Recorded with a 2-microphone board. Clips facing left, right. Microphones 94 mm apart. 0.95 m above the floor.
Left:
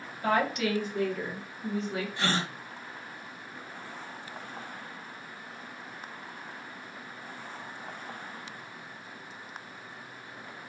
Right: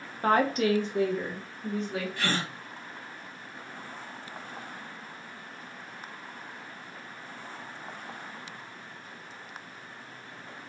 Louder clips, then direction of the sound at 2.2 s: Left 2 dB; 20° left (ahead or behind).